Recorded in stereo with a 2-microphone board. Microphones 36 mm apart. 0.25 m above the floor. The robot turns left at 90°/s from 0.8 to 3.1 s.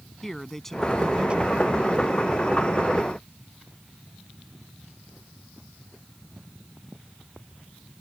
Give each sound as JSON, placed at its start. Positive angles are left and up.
{"t": 0.2, "sound": "a man speaking", "azimuth_deg": 10}